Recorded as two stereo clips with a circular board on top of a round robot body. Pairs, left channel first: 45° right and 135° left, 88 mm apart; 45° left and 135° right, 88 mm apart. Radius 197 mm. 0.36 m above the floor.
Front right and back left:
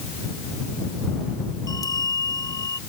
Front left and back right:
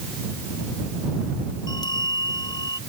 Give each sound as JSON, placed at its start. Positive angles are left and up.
{"t": 1.7, "sound": "a bell", "azimuth_deg": 5}